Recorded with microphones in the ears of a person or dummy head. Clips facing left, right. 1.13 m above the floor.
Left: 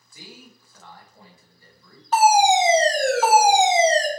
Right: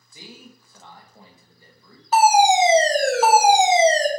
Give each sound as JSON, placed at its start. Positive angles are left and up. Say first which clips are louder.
{"t": 0.1, "sound": "a man speaking", "louder": "right 2 dB", "side_deg": -20, "distance_m": 1.1}
{"t": 2.1, "sound": "a fire alarm", "louder": "right 1 dB", "side_deg": -10, "distance_m": 1.0}